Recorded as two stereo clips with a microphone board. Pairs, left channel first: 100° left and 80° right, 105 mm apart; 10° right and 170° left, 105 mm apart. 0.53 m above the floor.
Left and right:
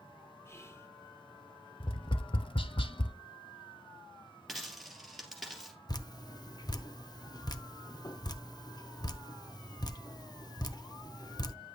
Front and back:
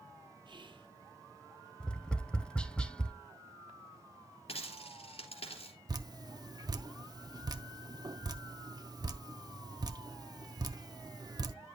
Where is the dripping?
130° left, 0.6 m.